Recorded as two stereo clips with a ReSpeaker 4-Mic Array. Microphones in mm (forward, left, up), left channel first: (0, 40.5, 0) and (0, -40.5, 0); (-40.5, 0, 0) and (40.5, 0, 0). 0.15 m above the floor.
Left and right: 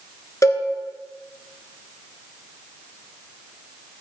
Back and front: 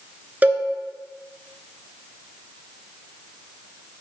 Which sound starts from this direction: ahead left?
A cowbell, at 0.4 s.